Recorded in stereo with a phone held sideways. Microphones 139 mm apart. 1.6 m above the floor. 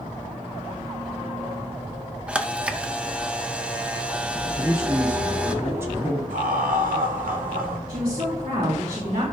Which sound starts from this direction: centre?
A camera shutter, at 2.3 s.